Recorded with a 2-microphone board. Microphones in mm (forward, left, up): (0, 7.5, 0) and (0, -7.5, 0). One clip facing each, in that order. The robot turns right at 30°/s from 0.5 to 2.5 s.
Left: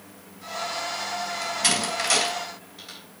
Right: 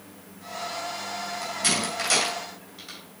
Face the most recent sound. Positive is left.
turn(degrees=0)  # may be behind; listen again after turning